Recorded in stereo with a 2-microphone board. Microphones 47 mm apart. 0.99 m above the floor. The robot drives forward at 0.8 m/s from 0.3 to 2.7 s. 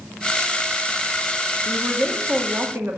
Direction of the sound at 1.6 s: 40° right (ahead or behind).